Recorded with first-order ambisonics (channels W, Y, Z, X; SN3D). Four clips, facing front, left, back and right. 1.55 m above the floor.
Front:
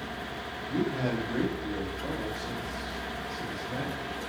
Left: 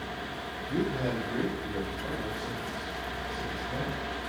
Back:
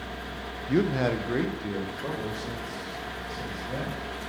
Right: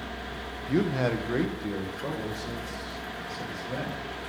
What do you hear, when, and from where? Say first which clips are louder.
0.7 s a man speaking: right 4 dB, back 5 dB; 150° right, 0.6 m; by 4.3 s 130° right, 3 m